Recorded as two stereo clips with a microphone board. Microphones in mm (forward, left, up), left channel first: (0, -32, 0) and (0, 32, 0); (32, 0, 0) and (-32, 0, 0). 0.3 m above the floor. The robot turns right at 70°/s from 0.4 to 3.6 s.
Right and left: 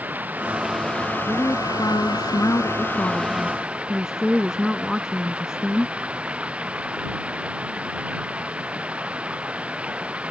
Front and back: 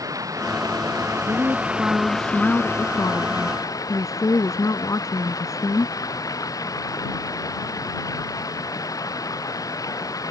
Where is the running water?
155° left; by 10.3 s 20° left.